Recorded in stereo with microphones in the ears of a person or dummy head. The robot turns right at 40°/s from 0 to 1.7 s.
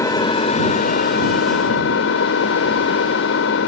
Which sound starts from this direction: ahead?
An engine running, at 0.0 s.